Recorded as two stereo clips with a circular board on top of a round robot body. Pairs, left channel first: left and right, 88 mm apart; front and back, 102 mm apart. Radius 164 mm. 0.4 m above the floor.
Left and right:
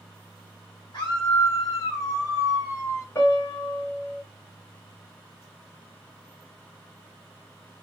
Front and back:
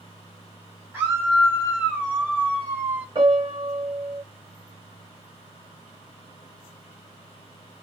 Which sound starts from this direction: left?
A scream, at 0.9 s.